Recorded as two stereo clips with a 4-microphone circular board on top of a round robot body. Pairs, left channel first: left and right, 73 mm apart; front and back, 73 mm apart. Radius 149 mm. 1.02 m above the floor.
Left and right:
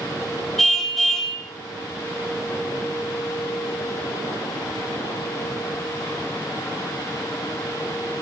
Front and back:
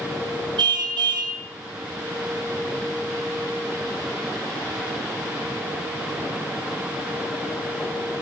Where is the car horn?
Straight behind, 3.5 m.